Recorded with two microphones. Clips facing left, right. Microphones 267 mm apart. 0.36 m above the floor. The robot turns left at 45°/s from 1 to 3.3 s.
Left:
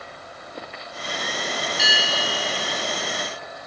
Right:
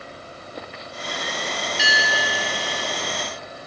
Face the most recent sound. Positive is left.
turn(degrees=-80)